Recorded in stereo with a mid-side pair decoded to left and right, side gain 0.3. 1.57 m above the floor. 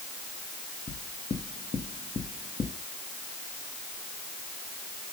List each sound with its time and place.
0.9 s knocking: 55° left, 1.7 m